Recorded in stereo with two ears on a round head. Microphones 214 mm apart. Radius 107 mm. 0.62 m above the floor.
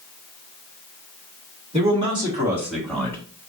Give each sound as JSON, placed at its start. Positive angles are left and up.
{"t": 1.7, "sound": "a man speaking", "side_deg": -30, "distance_m": 2.0}